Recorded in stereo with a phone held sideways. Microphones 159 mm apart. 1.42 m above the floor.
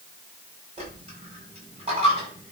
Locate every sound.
0.8 s a dropped coin: 40° right (ahead or behind), 5.5 m